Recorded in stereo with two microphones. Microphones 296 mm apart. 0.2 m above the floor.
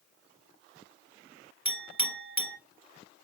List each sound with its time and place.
1.6 s a clink: 45° right (ahead or behind), 1.1 m